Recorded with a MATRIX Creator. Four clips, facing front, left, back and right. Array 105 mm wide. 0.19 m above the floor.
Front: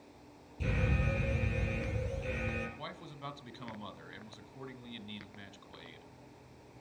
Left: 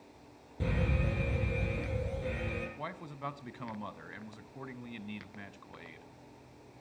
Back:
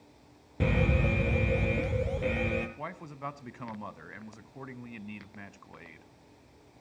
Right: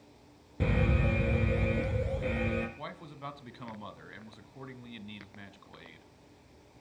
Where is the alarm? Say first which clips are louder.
Right 4 dB, back 7 dB; 160° right, 3 m.